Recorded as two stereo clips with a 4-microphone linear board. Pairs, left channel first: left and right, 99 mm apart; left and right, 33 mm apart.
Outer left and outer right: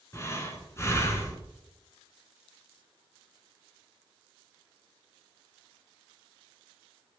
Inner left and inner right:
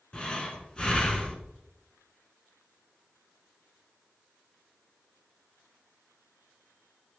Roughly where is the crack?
I don't hear a crack.